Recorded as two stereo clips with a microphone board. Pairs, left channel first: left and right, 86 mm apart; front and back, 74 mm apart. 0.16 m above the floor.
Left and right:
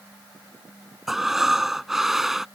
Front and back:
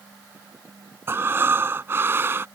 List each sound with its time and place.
1.1 s breathing: 175° right